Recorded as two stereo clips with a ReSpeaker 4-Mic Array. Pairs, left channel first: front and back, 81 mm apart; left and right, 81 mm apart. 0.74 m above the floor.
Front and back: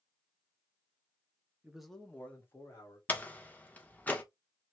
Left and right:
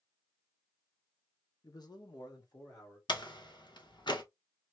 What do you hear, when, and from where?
1.6 s a man speaking: 105° left, 1.2 m; by 3.0 s 50° left, 2.5 m
3.1 s a door slam: 70° left, 1.2 m